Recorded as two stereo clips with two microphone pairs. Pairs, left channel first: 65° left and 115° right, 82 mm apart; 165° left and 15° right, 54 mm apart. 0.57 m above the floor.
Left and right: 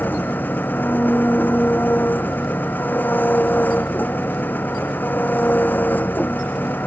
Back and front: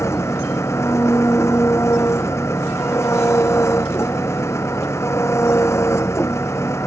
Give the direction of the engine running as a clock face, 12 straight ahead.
8 o'clock.